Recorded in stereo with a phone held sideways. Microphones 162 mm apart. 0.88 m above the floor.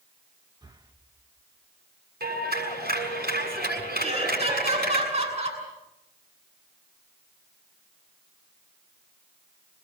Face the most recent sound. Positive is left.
turn(degrees=-40)  # may be behind; listen again after turning